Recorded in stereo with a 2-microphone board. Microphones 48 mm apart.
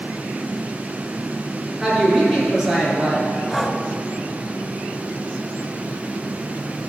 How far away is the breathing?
About 1.2 m.